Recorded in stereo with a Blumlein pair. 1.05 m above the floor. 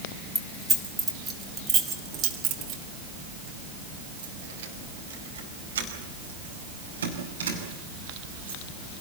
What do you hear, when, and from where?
0.3 s keys jangling: 5° left, 2.5 m; by 8.6 s 75° right, 7 m